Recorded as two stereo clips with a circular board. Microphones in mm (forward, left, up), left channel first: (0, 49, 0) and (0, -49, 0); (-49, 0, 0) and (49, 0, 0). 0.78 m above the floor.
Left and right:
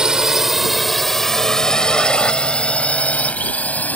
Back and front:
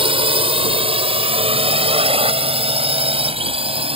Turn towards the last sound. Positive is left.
turn(degrees=15)